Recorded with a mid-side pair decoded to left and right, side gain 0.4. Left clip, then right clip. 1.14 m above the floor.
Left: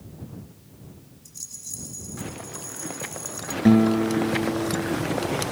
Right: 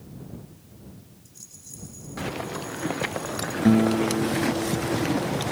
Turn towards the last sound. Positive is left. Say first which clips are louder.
# left 2 dB
turn(degrees=15)